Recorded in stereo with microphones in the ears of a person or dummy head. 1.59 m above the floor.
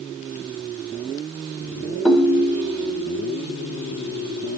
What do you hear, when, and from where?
2.0 s a ringtone: 5° left (ahead or behind), 0.6 m